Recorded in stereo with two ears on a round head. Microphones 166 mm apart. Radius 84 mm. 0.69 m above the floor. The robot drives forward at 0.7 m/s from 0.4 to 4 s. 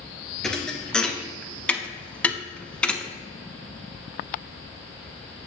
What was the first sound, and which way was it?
A thud, 5° left (ahead or behind).